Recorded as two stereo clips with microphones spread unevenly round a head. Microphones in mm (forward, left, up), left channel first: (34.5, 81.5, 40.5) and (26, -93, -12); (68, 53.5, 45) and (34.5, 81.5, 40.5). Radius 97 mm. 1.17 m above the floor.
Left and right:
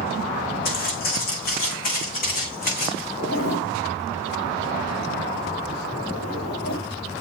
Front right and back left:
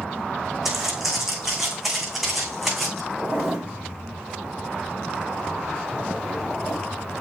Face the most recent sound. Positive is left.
turn(degrees=60)